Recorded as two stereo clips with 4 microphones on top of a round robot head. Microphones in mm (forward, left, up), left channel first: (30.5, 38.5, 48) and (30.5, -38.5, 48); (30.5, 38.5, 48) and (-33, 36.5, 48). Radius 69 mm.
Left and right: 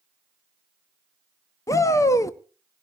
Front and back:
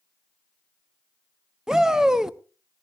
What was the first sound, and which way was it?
A shout, 105° left.